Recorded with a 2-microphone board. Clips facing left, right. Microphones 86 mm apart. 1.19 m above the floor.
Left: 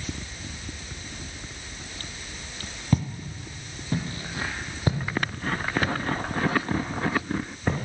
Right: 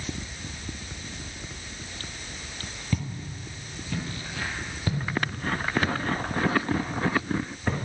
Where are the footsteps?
40° left (ahead or behind), 1.4 m; by 7.9 s 20° left (ahead or behind), 4.5 m.